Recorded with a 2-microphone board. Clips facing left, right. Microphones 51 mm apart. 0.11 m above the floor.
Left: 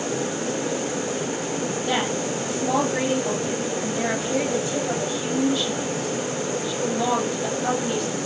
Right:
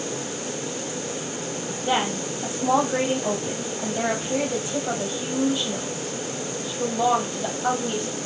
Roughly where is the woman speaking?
Centre.